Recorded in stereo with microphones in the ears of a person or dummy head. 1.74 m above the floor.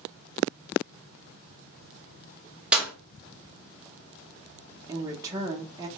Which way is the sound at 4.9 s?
20° right (ahead or behind).